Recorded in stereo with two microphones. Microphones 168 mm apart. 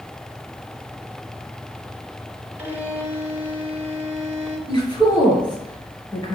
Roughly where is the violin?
Centre.